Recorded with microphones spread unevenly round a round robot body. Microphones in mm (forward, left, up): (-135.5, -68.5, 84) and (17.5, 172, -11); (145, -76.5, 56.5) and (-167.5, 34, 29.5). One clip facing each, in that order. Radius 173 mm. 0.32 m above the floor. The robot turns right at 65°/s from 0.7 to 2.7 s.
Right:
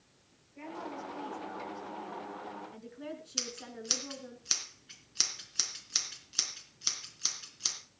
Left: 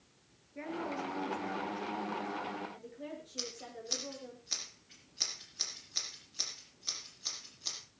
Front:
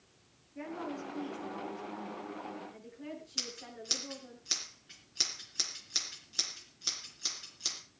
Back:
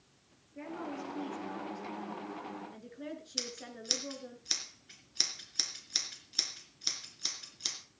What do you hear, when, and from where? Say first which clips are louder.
0.6 s a woman speaking: left 4 dB, front 1 dB; 55° left, 5 m; by 4.4 s 175° right, 5 m
3.4 s scissors: right 2 dB, back 2 dB; 125° right, 3.5 m